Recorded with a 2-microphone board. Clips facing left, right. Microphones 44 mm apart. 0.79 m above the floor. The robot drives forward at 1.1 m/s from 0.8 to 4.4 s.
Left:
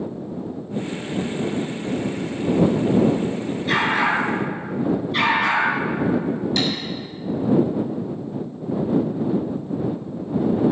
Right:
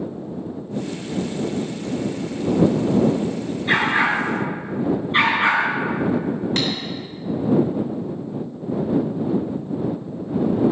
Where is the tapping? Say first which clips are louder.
Left 1 dB; 50° right (ahead or behind), 3.5 m.